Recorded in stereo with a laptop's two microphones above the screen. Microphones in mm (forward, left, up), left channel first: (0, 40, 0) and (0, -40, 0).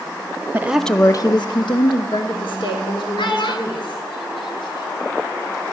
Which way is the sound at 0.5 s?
25° right (ahead or behind).